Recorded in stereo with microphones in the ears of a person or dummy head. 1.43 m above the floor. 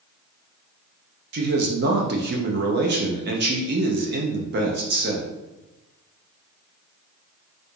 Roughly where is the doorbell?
I don't hear a doorbell.